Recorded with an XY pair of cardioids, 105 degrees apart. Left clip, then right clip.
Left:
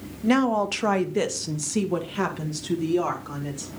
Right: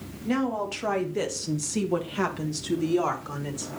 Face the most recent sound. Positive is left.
turn(degrees=-10)